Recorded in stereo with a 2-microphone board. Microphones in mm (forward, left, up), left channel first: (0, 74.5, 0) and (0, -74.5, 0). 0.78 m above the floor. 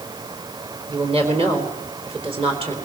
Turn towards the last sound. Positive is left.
turn(degrees=-40)  # may be behind; listen again after turning